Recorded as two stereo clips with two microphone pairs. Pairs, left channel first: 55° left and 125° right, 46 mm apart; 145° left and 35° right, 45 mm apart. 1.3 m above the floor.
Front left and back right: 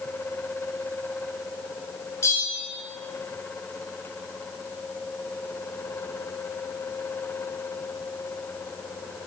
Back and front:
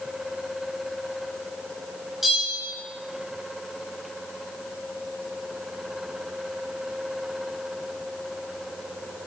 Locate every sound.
2.2 s a bell: 55° left, 7 m